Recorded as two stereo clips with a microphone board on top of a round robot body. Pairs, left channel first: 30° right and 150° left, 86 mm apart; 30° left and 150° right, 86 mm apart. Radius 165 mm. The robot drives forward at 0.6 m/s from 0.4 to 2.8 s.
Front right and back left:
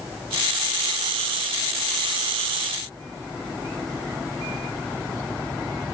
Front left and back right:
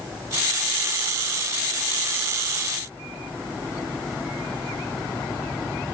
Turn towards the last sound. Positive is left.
No sound to turn to.